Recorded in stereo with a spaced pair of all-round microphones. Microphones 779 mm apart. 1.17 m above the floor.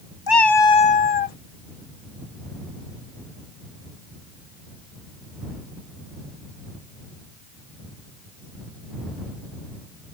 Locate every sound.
0.3 s a cat meowing: 30° left (ahead or behind); by 1.4 s 50° left (ahead or behind)